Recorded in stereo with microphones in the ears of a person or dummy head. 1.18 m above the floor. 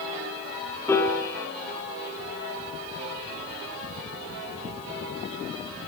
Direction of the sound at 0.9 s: 15° left (ahead or behind).